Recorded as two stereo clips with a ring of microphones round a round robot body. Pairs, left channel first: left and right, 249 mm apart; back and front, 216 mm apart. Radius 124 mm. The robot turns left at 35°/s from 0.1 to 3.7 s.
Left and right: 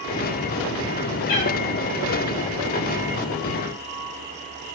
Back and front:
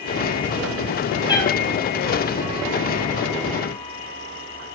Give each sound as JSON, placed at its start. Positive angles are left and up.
{"t": 1.3, "sound": "a cat meowing", "azimuth_deg": 110, "distance_m": 0.7}